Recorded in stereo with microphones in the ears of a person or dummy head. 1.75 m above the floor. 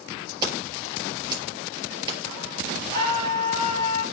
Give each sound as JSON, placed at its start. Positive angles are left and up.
{"t": 0.4, "sound": "scissors", "side_deg": -20, "distance_m": 5.0}
{"t": 2.9, "sound": "a scream", "side_deg": 15, "distance_m": 3.5}